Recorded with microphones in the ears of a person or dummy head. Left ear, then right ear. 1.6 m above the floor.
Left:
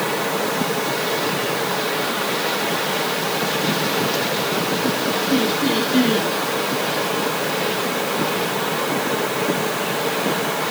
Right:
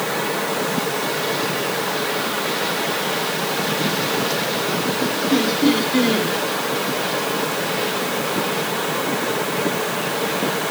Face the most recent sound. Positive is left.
turn(degrees=-15)  # may be behind; listen again after turning